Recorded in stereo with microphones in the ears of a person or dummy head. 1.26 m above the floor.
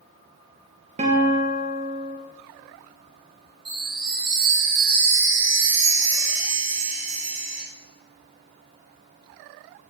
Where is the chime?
85° right, 1.9 m.